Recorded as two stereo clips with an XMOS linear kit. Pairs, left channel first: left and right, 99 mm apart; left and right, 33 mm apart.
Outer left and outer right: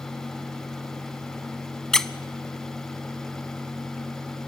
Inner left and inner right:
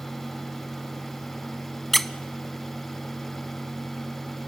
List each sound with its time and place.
1.9 s a squeak: 5° left (ahead or behind), 0.5 m